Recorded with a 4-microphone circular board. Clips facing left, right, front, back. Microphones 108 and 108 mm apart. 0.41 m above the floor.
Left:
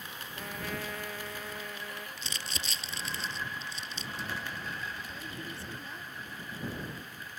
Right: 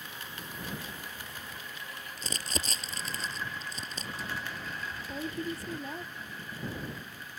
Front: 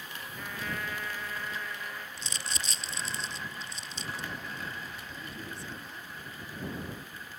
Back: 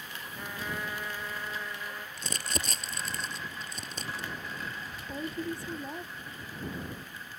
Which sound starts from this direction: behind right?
Crumpling, at 2.2 s.